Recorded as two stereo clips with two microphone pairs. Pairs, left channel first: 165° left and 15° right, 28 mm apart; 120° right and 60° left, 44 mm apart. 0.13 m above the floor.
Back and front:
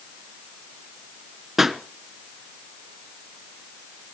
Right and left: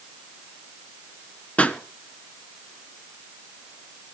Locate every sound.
1.6 s a pop: 90° right, 1.2 m